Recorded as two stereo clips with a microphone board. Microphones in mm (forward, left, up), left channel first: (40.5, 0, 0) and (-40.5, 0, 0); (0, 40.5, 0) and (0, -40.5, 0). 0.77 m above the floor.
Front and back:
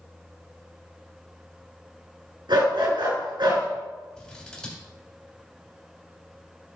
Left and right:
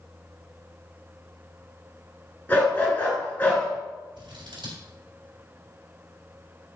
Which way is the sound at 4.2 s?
80° right.